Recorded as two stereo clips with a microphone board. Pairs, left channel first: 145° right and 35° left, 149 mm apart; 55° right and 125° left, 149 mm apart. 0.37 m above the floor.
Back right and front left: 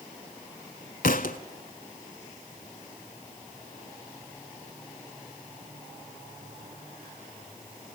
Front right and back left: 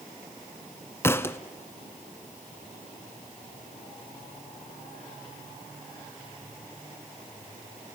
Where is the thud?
130° right, 0.7 m.